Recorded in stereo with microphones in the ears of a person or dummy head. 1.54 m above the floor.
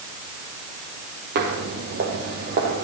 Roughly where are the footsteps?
Right.